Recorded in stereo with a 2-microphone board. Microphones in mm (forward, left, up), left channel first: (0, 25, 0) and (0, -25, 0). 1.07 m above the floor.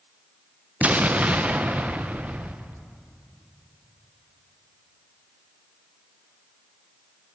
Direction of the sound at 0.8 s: 30° right (ahead or behind).